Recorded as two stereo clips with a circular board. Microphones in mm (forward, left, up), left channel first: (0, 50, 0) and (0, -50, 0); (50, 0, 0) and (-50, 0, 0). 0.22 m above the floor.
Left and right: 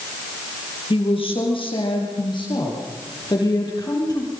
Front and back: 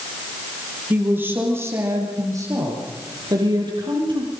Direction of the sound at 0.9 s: 105° left.